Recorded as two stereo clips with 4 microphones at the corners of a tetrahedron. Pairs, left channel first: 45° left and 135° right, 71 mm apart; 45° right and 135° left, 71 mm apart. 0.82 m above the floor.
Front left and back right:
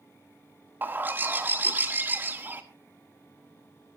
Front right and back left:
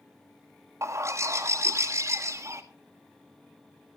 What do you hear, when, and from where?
0.8 s a bird: 170° left, 1.7 m